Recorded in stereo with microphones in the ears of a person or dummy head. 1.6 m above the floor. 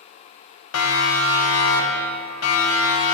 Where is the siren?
80° left, 2 m; by 3.1 s 75° left (ahead or behind), 3.5 m.